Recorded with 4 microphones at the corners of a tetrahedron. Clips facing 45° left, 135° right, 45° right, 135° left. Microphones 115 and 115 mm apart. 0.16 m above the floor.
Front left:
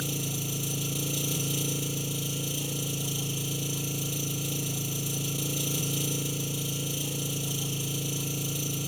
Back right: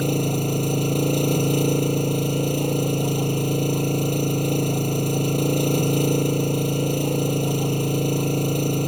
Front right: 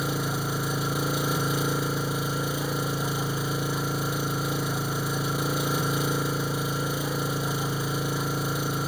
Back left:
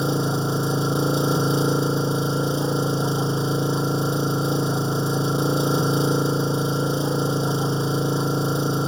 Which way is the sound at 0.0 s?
165° right.